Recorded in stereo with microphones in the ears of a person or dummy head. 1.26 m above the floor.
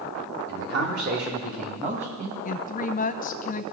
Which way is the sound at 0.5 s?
70° right (ahead or behind).